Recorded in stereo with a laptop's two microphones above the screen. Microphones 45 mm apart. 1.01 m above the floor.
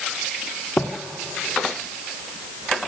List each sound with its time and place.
0.8 s footsteps: 50° left (ahead or behind), 1.5 m